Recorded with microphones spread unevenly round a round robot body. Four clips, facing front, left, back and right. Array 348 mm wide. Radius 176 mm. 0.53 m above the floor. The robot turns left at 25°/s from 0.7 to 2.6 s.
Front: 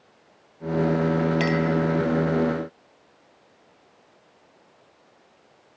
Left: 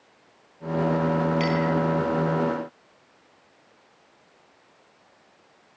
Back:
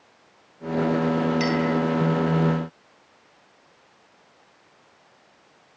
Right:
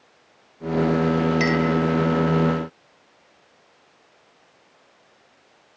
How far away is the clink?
About 3 m.